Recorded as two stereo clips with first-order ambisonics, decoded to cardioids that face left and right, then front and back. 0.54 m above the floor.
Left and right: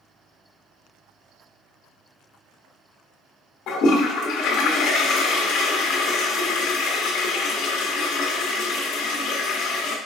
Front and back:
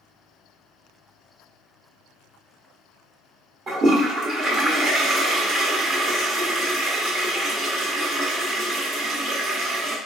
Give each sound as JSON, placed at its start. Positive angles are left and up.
{"t": 3.7, "sound": "a toilet flushing", "azimuth_deg": 125, "distance_m": 1.1}